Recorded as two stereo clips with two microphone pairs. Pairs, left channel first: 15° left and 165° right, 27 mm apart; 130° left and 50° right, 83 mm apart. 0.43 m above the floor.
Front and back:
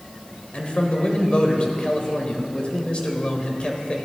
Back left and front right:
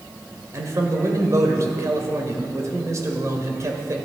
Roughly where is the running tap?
I don't hear a running tap.